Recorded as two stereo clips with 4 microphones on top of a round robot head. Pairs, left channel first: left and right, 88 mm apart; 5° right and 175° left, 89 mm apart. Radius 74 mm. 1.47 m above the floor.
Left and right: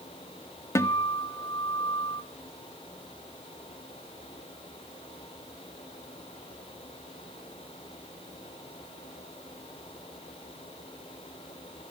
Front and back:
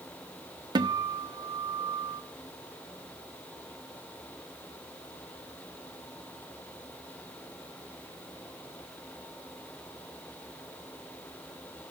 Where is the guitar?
145° left, 1.2 m.